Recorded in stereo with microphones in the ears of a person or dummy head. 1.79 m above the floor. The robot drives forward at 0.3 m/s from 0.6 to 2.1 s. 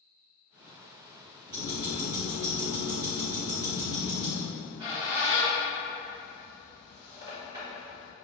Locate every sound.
1.5 s ticking: 30° right (ahead or behind), 0.8 m; by 4.4 s 25° right (ahead or behind), 1.0 m
4.5 s a squeak: 30° right (ahead or behind), 1.6 m